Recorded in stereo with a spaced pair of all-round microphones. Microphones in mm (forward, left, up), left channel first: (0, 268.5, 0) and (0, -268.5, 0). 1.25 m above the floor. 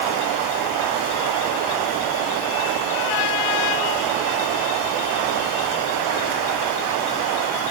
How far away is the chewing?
I don't hear chewing.